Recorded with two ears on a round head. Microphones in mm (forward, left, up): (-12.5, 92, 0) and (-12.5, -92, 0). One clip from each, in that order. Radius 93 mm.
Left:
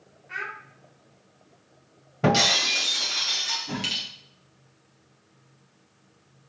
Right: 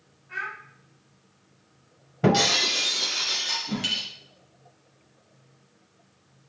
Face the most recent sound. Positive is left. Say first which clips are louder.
# right 1 dB
turn(degrees=70)  # may be behind; listen again after turning